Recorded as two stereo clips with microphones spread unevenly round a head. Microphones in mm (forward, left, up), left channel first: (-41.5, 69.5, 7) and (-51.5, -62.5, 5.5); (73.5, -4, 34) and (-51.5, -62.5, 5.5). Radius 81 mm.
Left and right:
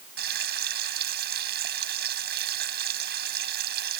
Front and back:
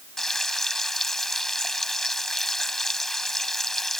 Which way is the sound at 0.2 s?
60° right.